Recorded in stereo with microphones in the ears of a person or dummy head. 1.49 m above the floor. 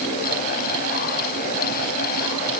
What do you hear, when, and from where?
Only background noise.